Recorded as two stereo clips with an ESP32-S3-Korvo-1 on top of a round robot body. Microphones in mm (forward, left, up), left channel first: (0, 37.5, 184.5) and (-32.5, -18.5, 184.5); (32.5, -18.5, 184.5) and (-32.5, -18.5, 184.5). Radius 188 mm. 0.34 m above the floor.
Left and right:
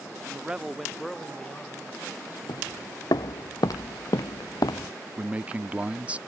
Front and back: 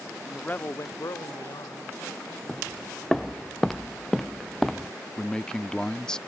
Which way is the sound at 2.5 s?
85° left.